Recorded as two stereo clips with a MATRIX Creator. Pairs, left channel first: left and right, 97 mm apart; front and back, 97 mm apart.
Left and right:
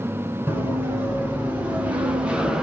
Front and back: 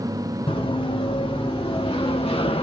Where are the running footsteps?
20° right, 3.5 m; by 2.6 s 5° right, 1.3 m.